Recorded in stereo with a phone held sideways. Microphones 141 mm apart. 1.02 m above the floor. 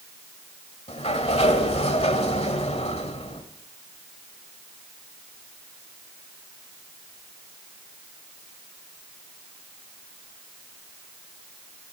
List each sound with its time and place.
0.9 s a sliding door: 50° left (ahead or behind), 1.5 m